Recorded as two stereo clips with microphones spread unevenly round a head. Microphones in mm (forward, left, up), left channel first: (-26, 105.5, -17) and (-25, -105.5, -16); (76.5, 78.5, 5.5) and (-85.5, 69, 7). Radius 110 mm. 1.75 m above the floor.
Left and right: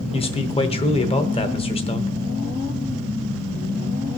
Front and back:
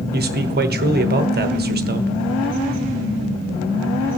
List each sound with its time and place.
0.1 s a man speaking: 155° left, 1.1 m